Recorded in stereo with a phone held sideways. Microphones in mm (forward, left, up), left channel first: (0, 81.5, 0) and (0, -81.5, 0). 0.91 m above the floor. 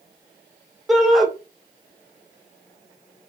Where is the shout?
Centre (ahead or behind), 1.1 m.